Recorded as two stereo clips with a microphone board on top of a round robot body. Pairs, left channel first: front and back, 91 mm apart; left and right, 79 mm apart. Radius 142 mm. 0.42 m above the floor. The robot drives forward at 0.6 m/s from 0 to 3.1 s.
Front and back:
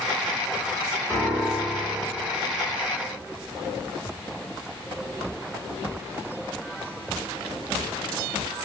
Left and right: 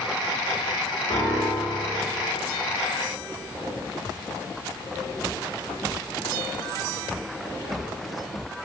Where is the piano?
70° left, 3 m; by 2.0 s 80° left, 3 m.